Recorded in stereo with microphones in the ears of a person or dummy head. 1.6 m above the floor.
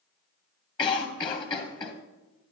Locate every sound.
0.8 s a cough: 25° left (ahead or behind), 1.3 m